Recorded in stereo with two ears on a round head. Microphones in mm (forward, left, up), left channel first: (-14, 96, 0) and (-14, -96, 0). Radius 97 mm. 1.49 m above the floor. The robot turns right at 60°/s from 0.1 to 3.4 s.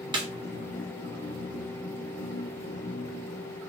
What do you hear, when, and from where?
0.1 s a snare drum: 20° right (ahead or behind), 0.7 m; by 0.3 s 30° right (ahead or behind), 0.7 m